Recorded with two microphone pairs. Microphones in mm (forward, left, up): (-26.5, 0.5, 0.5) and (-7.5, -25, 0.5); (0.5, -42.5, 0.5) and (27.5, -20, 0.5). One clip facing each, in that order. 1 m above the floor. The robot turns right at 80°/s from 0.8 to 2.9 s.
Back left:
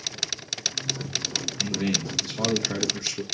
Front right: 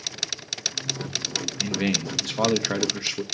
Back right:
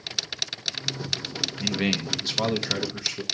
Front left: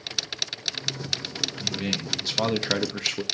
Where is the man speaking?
105° right, 0.8 m; by 3.2 s straight ahead, 0.8 m.